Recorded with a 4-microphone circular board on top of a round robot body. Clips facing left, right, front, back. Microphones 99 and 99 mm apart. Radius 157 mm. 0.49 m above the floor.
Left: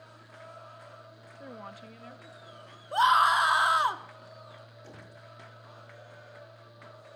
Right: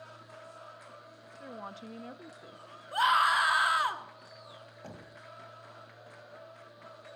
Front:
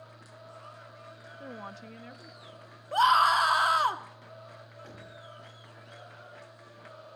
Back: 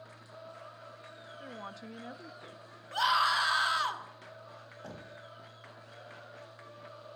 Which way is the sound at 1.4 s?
25° left.